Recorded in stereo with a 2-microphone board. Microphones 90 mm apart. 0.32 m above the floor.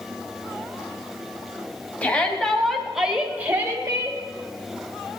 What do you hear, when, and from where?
2.0 s a shout: 15° left (ahead or behind), 3 m; by 4.2 s 40° right (ahead or behind), 2 m